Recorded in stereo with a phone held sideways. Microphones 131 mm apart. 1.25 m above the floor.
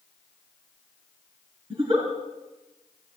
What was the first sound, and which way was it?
A giggle, 40° right (ahead or behind).